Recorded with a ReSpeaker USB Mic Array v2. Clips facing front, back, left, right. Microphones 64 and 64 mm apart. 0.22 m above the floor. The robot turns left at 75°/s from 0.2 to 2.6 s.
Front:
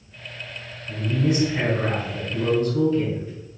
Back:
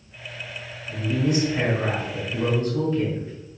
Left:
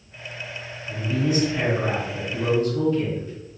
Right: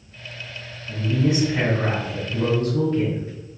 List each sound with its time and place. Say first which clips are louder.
0.9 s a woman speaking: even, right 2 dB; 5° right, 1.9 m; by 3.3 s 135° right, 1.9 m